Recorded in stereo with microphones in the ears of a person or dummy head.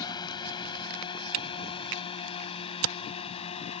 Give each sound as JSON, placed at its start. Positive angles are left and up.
{"t": 0.0, "sound": "a drone", "side_deg": 20}
{"t": 1.3, "sound": "a camera shutter", "side_deg": -80}